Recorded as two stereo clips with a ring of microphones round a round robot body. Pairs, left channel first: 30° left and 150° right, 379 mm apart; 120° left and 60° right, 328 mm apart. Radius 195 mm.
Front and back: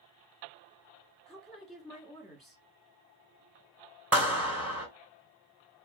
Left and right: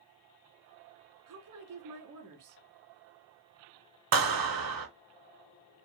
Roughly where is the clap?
Ahead right.